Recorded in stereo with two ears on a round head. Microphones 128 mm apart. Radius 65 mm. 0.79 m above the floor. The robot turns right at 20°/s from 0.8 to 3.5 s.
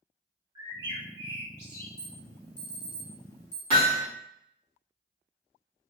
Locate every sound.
0.6 s a bird: 35° right (ahead or behind), 1.6 m; by 1.9 s 15° right (ahead or behind), 1.6 m
2.0 s an alarm: 30° left (ahead or behind), 1.5 m; by 3.6 s 25° left (ahead or behind), 1.5 m
3.7 s hammering: 40° right (ahead or behind), 1.4 m